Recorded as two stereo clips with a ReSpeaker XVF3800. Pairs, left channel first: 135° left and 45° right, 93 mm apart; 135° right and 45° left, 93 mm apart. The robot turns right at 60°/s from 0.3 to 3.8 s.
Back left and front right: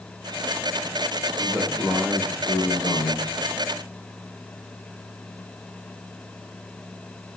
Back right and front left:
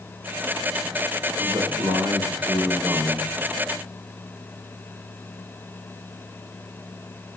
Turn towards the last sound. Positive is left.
turn(degrees=165)